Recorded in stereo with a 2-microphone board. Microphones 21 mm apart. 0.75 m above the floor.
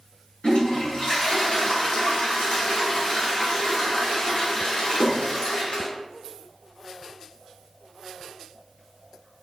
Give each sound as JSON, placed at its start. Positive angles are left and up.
{"t": 0.4, "sound": "a toilet flushing", "side_deg": 60, "distance_m": 1.5}